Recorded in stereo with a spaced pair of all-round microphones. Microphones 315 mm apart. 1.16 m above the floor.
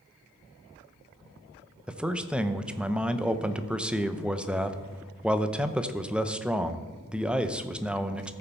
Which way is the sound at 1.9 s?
5° right (ahead or behind).